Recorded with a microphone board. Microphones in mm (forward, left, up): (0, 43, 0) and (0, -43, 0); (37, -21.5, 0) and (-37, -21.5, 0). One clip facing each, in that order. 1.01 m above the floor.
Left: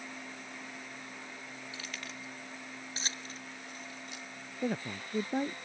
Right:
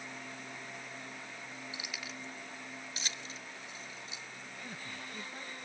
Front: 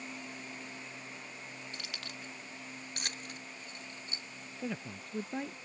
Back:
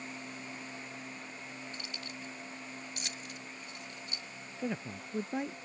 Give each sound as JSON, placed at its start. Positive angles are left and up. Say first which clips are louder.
{"t": 1.7, "sound": "keys jangling", "louder": "left 1 dB, back 1 dB", "azimuth_deg": -20}
{"t": 4.6, "sound": "a man speaking", "louder": "left 13 dB, back 3 dB", "azimuth_deg": 105}